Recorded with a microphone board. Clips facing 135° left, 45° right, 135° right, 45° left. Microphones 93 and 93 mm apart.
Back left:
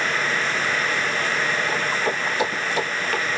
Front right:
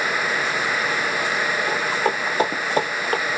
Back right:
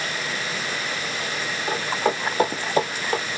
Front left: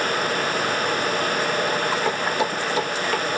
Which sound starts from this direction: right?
Footsteps, at 1.7 s.